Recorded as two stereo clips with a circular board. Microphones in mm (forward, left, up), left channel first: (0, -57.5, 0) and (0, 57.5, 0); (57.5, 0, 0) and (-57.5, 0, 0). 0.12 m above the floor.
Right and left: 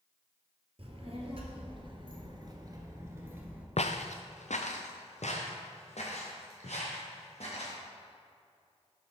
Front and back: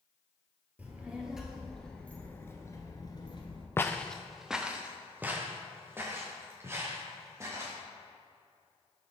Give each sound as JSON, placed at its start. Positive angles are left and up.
{"t": 0.8, "sound": "a child speaking", "azimuth_deg": 105, "distance_m": 1.6}
{"t": 3.8, "sound": "footsteps", "azimuth_deg": -70, "distance_m": 0.5}